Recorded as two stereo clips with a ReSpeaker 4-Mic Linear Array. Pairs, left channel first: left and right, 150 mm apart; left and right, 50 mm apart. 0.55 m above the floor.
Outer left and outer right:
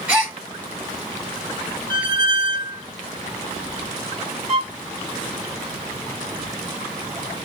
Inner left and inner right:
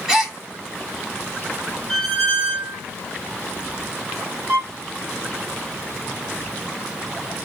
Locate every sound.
0.1 s a gasp: 15° right (ahead or behind), 1.5 m
1.9 s a squeak: 15° left (ahead or behind), 0.8 m
4.5 s a violin: 45° right (ahead or behind), 1.5 m